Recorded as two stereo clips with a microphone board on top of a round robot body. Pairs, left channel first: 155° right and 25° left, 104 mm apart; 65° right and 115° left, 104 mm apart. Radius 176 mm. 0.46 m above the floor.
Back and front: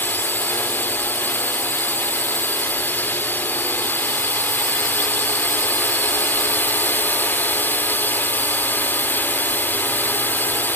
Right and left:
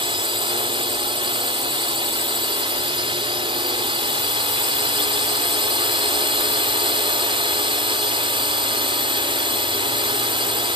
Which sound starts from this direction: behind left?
A drone, at 0.0 s.